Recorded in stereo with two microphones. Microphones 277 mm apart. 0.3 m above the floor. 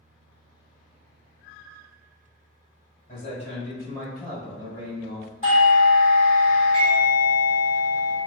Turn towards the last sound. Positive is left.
turn(degrees=25)  # may be behind; listen again after turning